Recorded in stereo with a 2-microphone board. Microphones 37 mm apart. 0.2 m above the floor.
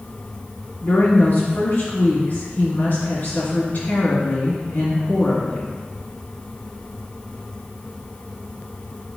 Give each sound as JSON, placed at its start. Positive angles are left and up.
{"t": 0.8, "sound": "a woman speaking", "side_deg": 45, "distance_m": 1.8}